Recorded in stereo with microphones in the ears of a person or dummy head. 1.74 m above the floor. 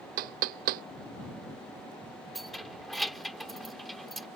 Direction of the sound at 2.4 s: Centre (ahead or behind).